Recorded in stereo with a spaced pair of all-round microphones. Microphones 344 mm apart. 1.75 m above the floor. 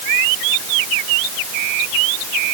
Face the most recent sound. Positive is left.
No sound to turn to.